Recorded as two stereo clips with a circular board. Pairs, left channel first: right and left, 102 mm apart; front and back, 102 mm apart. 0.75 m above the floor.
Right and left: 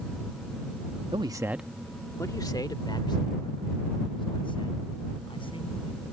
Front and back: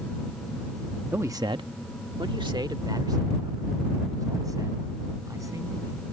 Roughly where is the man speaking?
Behind left.